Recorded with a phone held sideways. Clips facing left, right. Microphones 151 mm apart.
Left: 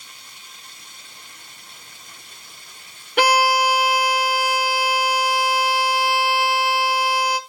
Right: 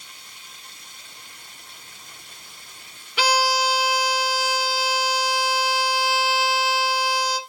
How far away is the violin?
About 0.9 m.